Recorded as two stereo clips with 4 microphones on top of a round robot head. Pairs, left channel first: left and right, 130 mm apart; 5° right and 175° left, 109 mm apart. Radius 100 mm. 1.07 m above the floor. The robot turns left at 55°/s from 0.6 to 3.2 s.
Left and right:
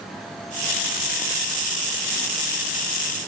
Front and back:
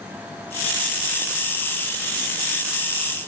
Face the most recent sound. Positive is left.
No sound to turn to.